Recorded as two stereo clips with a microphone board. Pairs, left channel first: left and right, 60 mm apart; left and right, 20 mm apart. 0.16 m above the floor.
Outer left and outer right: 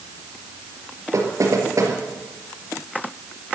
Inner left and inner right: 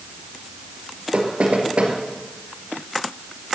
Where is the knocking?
60° right (ahead or behind), 3 m.